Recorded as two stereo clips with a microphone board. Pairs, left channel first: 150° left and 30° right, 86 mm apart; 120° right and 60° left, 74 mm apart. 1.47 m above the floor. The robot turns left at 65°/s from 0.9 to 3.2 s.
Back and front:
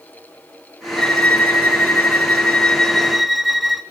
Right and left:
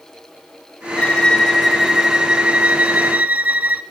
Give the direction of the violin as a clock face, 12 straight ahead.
5 o'clock.